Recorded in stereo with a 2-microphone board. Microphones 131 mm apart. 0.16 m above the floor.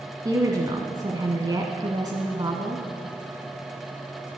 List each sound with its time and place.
0.2 s a woman speaking: 30° right (ahead or behind), 1.2 m